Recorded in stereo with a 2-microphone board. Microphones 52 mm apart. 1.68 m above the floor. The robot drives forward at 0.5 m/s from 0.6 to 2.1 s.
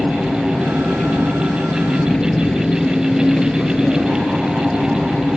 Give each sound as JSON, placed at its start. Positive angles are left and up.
{"t": 0.0, "sound": "an engine running", "side_deg": 20}